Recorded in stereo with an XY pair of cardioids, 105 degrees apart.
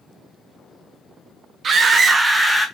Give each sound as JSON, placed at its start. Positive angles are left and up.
{"t": 1.6, "sound": "a scream", "azimuth_deg": -45, "distance_m": 0.8}